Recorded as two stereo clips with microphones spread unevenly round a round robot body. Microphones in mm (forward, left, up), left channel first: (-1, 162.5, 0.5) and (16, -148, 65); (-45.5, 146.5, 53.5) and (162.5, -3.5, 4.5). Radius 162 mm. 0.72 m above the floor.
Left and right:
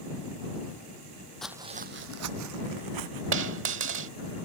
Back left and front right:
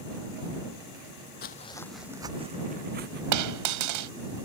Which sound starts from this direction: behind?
Footsteps, at 1.4 s.